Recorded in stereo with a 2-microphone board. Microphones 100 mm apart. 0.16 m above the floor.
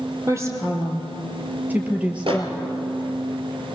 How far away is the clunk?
I don't hear a clunk.